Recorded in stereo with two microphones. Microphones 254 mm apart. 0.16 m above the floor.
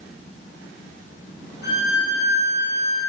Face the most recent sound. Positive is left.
turn(degrees=40)  # may be behind; listen again after turning